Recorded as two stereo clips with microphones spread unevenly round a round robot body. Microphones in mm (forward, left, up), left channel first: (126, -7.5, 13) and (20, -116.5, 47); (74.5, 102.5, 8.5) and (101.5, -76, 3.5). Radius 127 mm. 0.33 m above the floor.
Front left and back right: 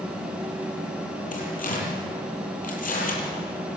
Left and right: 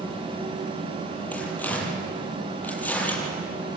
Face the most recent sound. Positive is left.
turn(degrees=20)